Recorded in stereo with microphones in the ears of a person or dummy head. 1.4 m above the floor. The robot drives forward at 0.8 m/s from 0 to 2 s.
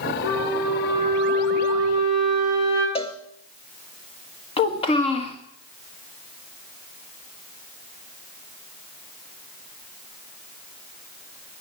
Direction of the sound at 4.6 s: 25° left (ahead or behind).